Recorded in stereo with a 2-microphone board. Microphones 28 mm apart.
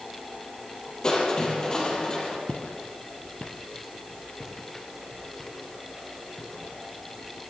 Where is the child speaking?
I don't hear a child speaking.